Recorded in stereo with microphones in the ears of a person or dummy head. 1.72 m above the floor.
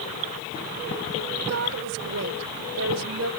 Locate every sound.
1.5 s a woman speaking: 90° right; by 3.3 s 85° right